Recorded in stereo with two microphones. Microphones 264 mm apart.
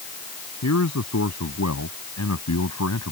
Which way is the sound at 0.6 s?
70° left (ahead or behind).